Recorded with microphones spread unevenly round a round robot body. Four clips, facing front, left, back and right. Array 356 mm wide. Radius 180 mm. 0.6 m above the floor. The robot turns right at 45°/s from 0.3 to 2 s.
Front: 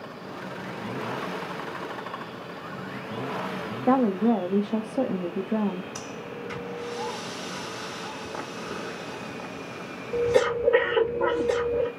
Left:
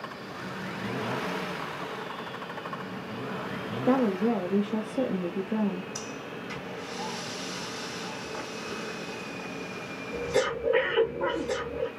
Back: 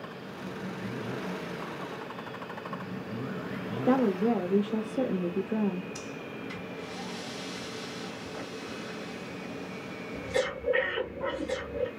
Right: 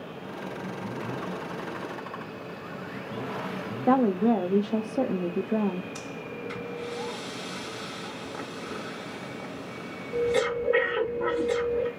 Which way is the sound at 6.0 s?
Straight ahead.